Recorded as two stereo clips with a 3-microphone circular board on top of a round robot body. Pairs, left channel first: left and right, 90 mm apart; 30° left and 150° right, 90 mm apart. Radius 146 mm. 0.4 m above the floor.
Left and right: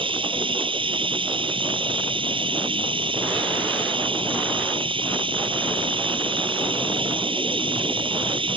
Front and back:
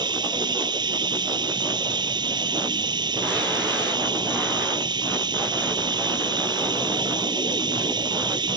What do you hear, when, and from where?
0.0 s running water: 115° right